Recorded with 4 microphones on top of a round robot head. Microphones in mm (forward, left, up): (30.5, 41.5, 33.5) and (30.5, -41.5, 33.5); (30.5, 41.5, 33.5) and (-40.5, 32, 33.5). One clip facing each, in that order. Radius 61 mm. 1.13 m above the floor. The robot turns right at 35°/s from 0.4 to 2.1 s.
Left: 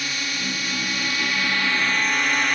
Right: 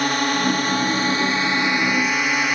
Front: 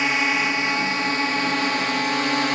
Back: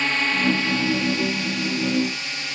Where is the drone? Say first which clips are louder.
Right 10 dB, front 1 dB; 70° right; by 2.6 s 10° right.